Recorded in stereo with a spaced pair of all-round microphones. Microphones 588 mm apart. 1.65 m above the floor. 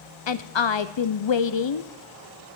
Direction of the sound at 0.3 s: 50° left (ahead or behind).